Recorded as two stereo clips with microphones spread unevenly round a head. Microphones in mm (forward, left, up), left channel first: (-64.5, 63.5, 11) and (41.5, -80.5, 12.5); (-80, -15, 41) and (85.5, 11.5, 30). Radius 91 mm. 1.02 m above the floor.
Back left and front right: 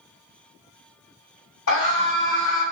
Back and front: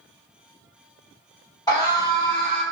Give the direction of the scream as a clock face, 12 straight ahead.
8 o'clock.